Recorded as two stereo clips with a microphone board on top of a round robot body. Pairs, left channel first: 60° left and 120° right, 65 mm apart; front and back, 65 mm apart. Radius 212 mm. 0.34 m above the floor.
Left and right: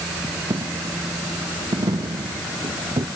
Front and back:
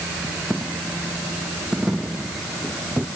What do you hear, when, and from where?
0.5 s a dropped coin: 95° right